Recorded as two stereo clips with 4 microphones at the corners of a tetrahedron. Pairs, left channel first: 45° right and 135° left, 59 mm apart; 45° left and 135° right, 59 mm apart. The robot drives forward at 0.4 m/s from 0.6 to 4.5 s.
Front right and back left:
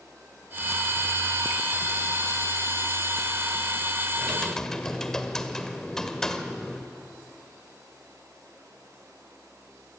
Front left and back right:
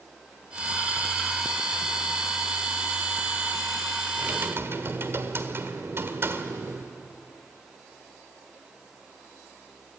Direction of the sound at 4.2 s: 115° right.